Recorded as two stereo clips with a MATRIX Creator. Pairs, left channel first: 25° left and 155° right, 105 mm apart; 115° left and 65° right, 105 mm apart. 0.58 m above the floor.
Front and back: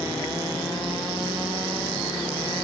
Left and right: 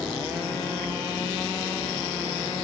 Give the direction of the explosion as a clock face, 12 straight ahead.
No explosion in this recording.